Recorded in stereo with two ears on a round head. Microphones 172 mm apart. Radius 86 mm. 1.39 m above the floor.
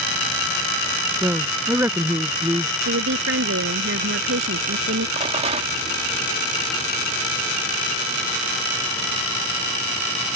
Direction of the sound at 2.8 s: 70° right (ahead or behind).